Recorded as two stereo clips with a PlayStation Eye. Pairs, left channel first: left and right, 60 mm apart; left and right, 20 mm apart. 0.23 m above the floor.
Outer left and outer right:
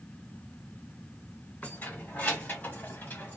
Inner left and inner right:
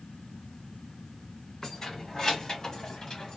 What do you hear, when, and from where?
1.6 s keys jangling: 25° left (ahead or behind), 1.5 m; by 3.4 s 30° left (ahead or behind), 1.2 m